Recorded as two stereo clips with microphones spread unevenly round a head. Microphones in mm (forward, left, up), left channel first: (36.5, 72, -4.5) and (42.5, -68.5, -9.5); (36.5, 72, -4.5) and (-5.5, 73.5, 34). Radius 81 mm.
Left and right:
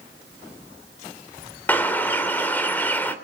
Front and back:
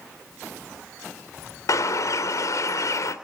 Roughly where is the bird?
Ahead.